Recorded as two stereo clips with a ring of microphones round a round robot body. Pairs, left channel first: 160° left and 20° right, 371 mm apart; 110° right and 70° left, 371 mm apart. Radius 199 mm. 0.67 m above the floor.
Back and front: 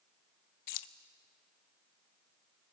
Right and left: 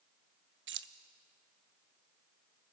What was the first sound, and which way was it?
Keys jangling, 125° left.